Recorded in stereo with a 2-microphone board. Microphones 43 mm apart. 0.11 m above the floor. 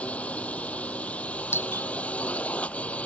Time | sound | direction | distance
0.0 | a drone | 30° left (ahead or behind) | ?
1.5 | a doorbell | 60° left (ahead or behind) | ?